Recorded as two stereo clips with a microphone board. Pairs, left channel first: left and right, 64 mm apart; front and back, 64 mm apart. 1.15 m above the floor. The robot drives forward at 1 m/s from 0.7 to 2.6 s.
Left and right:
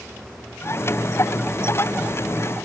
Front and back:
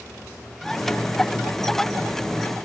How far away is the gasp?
No gasp in this recording.